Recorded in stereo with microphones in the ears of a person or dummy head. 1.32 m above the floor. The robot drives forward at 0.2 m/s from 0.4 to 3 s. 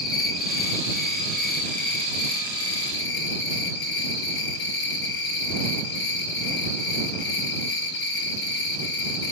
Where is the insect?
60° left (ahead or behind), 1.6 m.